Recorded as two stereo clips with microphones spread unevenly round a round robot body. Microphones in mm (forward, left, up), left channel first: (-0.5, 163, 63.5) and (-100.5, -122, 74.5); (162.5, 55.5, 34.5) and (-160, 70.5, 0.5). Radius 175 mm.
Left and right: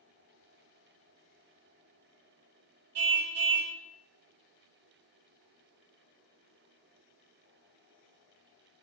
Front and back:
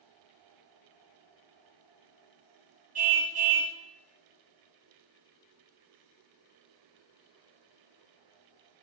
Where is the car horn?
110° right, 2.5 m.